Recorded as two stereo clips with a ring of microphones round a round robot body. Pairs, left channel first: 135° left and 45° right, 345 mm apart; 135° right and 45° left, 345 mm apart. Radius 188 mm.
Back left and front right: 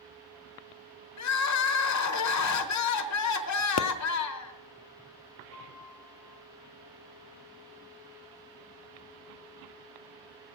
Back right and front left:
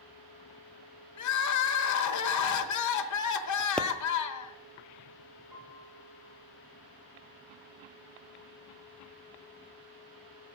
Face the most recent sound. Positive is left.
turn(degrees=10)